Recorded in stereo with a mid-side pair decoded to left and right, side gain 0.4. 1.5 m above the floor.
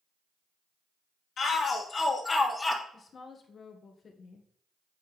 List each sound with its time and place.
1.4 s a shout: 60° left, 2.5 m; by 2.8 s 20° left, 1.7 m
2.9 s a woman speaking: 50° left, 1.4 m